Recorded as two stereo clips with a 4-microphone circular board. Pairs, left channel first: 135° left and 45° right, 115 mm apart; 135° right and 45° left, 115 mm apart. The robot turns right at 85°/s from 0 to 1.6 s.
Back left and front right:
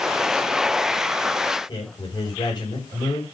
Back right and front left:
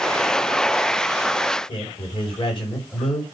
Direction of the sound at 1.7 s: Straight behind.